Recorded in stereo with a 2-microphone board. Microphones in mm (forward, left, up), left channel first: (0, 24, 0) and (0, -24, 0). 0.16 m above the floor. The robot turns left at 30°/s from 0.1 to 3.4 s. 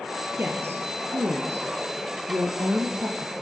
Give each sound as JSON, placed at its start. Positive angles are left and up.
{"t": 0.4, "sound": "a woman speaking", "side_deg": -50, "distance_m": 3.0}